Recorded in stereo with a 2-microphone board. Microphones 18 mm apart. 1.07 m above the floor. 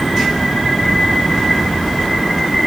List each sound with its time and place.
Only background noise.